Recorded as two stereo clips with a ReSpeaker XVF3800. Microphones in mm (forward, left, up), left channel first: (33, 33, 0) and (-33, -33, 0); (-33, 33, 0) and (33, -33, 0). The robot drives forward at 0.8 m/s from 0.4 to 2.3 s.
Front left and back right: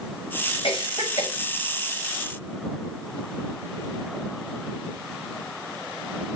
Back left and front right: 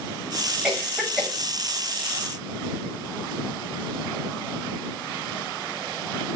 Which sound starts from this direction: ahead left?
A cough, at 0.6 s.